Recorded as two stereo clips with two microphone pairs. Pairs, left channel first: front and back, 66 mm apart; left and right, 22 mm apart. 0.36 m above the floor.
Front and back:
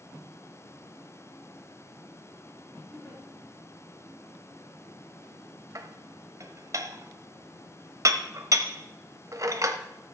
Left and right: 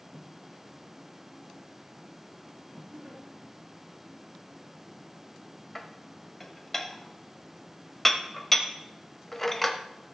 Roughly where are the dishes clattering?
Behind.